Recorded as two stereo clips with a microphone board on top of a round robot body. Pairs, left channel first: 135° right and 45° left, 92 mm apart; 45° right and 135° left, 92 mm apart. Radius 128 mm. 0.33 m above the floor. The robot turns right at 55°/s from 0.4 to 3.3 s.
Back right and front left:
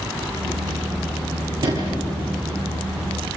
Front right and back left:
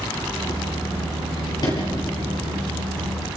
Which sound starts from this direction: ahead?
A sliding door, at 1.6 s.